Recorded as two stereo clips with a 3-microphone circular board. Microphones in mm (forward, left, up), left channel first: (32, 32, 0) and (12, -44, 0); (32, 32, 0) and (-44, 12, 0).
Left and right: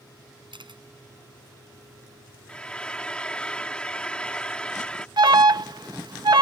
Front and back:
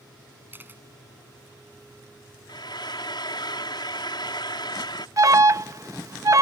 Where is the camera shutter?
100° right.